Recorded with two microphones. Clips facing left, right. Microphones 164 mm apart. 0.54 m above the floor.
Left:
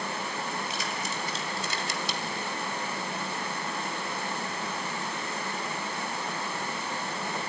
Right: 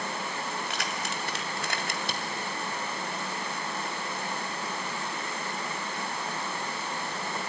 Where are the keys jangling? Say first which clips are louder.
Even; 75° right (ahead or behind), 2.5 m; by 2.5 s 45° right (ahead or behind), 2 m.